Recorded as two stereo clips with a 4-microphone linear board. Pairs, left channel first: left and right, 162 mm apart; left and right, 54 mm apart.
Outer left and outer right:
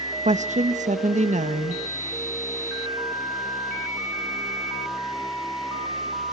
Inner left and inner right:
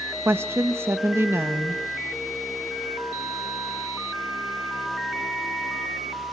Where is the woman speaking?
50° right (ahead or behind), 1.3 m.